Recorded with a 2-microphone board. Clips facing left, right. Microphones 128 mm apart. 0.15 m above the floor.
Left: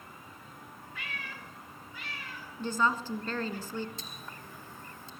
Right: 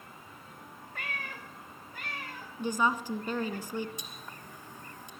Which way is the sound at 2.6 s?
15° right (ahead or behind).